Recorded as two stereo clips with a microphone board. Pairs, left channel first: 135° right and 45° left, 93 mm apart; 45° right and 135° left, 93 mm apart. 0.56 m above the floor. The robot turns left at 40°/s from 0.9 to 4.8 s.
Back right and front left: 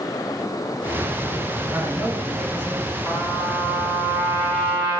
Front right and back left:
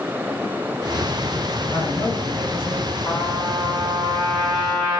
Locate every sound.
1.7 s a man speaking: 35° right, 1.3 m; by 3.0 s 85° right, 1.3 m
3.0 s a trumpet: 85° right, 1.1 m; by 5.0 s 155° right, 1.1 m